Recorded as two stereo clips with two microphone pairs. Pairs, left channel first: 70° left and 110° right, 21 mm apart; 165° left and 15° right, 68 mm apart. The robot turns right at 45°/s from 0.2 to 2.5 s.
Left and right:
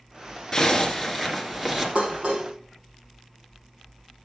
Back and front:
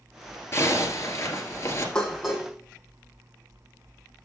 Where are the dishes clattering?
115° right, 2.5 m; by 2.5 s 95° right, 2.5 m.